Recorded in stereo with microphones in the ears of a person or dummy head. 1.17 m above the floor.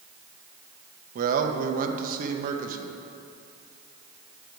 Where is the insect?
No insect in this recording.